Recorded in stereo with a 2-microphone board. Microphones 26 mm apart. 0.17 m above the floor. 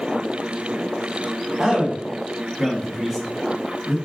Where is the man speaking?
25° right (ahead or behind), 1.2 m; by 4.0 s centre (ahead or behind), 1.5 m.